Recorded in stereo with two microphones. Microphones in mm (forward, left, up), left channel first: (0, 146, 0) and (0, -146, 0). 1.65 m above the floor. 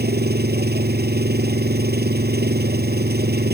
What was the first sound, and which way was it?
An engine running, 35° right (ahead or behind).